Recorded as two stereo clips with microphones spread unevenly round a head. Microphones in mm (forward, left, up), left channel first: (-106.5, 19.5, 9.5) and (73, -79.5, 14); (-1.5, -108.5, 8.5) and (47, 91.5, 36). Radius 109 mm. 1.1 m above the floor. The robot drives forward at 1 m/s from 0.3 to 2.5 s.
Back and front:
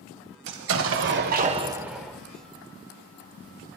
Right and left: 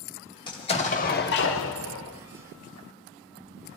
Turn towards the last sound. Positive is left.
turn(degrees=-140)